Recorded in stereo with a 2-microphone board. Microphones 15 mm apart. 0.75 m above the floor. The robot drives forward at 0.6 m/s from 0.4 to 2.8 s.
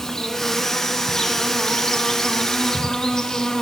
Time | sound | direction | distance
0.0 | an insect | 40° left (ahead or behind) | 1.4 m